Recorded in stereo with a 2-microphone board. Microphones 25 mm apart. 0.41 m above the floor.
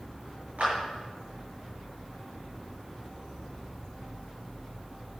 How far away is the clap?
About 6 m.